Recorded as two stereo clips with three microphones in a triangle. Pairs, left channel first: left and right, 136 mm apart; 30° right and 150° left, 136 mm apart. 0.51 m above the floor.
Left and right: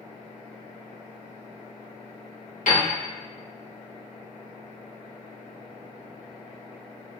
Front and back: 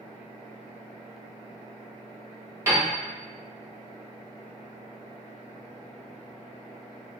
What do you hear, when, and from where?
2.7 s a piano: 80° left, 1.2 m